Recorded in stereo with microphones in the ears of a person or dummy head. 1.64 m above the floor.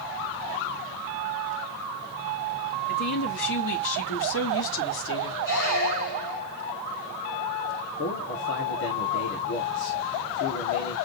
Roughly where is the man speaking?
Left.